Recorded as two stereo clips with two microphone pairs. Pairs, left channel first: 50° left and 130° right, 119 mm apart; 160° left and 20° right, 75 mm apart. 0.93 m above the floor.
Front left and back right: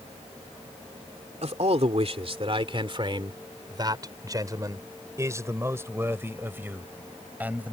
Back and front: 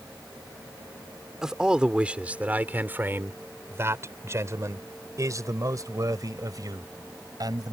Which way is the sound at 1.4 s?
105° right.